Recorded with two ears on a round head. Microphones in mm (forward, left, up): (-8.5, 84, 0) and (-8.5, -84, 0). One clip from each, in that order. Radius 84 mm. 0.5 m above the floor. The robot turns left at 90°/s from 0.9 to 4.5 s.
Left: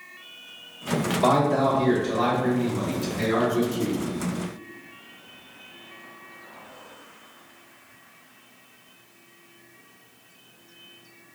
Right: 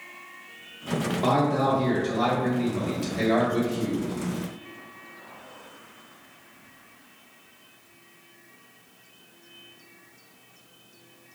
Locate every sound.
1.2 s a man speaking: 25° left (ahead or behind), 1.1 m; by 4.0 s 5° left (ahead or behind), 1.1 m